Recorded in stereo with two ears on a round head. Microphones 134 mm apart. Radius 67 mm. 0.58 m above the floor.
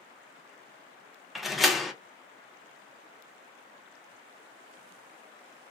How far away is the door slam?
About 0.5 m.